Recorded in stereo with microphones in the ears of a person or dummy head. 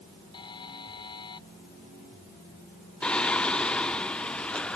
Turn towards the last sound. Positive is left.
turn(degrees=5)  # may be behind; listen again after turning